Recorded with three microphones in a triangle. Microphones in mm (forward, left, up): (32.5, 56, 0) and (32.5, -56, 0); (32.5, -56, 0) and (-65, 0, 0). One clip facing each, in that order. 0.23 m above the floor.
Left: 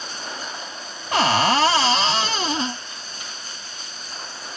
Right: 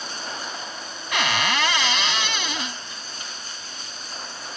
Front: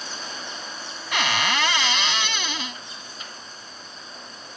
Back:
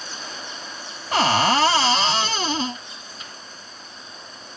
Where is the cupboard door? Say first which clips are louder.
Left 6 dB, back 7 dB; 120° left.